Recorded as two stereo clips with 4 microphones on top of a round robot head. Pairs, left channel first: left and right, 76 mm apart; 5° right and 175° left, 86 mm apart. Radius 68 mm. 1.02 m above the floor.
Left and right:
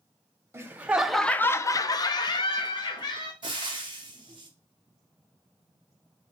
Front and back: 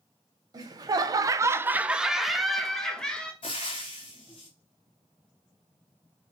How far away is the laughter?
About 0.7 m.